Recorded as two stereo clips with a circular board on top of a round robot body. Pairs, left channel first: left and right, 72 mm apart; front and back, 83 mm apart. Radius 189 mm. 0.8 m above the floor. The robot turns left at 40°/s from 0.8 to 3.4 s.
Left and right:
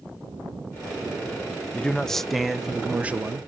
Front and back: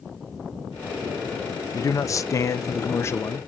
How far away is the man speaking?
About 0.6 m.